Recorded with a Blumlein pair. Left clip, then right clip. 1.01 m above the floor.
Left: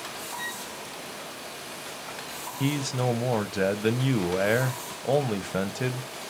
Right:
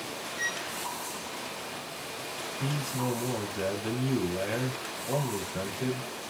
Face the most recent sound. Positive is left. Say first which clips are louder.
# left 7 dB
turn(degrees=55)